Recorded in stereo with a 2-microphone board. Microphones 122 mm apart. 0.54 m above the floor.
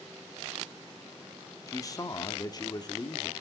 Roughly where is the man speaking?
Left.